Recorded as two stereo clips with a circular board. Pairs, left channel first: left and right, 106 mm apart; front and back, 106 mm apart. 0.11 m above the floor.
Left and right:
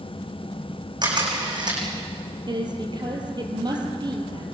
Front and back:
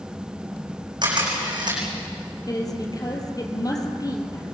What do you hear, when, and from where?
1.0 s a camera shutter: 135° right, 7 m
2.5 s a woman speaking: 50° right, 3.5 m